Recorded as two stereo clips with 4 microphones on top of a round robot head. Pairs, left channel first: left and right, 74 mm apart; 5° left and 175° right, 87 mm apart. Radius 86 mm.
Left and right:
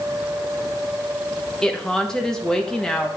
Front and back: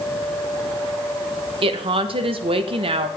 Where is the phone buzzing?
I don't hear a phone buzzing.